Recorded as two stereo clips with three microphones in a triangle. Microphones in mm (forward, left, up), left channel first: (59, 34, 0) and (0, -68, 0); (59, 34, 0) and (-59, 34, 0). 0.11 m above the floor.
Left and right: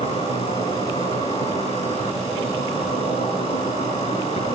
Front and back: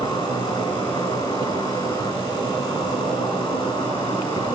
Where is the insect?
45° left, 8 m.